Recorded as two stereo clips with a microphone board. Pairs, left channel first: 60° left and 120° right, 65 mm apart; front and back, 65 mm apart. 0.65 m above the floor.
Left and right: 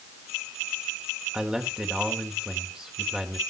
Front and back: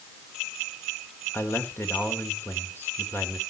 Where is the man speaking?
45° right, 2.5 m.